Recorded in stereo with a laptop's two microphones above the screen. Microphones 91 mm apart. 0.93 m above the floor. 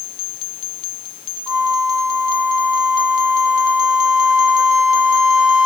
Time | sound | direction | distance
1.5 | a flute | 10° right (ahead or behind) | ?